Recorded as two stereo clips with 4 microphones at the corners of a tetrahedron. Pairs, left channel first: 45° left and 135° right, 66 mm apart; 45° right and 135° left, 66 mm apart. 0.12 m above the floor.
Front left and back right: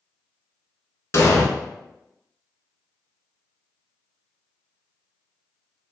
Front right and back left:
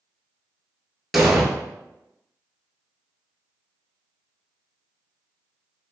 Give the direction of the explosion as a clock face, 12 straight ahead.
10 o'clock.